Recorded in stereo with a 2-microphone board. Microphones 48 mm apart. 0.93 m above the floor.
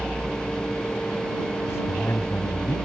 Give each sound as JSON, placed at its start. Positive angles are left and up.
{"t": 1.7, "sound": "a man speaking", "side_deg": 70}